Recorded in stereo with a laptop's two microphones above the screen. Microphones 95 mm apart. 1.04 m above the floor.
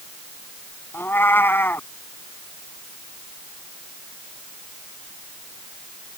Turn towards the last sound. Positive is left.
turn(degrees=25)  # may be behind; listen again after turning